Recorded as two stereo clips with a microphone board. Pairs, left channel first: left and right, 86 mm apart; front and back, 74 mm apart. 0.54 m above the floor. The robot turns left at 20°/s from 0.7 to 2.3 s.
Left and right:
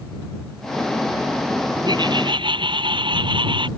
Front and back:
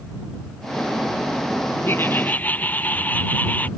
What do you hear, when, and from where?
1.9 s laughter: 60° right; by 3.7 s 65° right